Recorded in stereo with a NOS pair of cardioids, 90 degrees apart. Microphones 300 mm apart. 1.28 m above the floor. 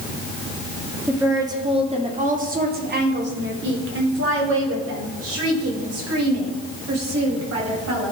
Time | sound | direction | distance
1.1 | a woman speaking | 5° right | 2.5 m